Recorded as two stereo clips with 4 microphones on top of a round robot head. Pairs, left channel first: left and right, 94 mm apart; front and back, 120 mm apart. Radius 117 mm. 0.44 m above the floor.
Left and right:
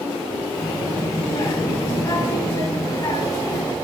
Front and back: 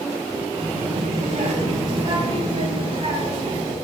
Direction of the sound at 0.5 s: 140° left.